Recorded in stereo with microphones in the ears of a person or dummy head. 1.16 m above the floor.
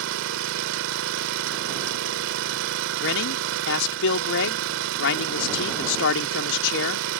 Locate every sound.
0.0 s an engine running: 75° right (ahead or behind)
3.0 s a man speaking: 70° left (ahead or behind)